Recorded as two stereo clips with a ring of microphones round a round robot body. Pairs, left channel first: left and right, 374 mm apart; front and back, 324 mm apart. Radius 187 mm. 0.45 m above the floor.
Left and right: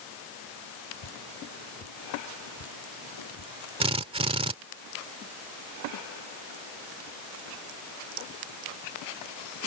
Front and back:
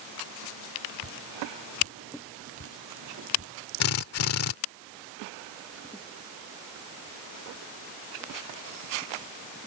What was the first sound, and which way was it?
Dripping, 130° left.